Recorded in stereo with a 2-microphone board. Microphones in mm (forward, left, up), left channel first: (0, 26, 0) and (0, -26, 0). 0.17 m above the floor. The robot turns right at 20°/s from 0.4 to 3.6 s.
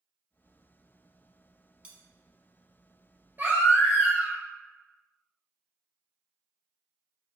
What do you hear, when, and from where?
1.8 s cutlery clinking: 20° right (ahead or behind), 0.9 m
3.4 s a baby crying: 35° right (ahead or behind), 1.2 m; by 4.4 s 40° right (ahead or behind), 1.2 m